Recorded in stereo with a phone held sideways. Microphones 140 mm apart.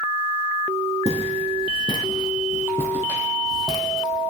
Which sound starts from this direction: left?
Footsteps, at 1.1 s.